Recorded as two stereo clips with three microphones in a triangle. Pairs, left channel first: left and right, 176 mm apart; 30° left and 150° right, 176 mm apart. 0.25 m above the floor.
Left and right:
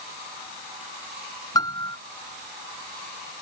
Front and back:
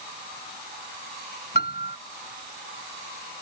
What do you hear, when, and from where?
1.6 s a piano: 25° left